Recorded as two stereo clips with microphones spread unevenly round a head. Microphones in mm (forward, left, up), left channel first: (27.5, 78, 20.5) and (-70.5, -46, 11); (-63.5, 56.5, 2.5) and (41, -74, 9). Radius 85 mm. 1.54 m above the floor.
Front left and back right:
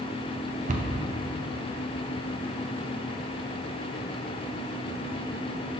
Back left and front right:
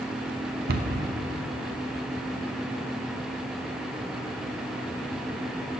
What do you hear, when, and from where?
0.7 s a cupboard door: 85° right, 0.8 m